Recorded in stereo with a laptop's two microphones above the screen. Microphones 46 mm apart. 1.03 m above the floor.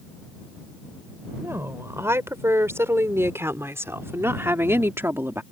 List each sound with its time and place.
1.4 s a woman speaking: 70° right (ahead or behind); by 5.4 s 60° right (ahead or behind)